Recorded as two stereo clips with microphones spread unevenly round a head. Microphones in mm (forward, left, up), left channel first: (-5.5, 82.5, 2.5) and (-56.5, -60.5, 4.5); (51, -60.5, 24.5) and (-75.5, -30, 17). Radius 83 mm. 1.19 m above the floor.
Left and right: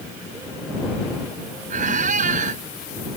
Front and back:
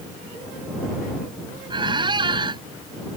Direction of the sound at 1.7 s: 140° right.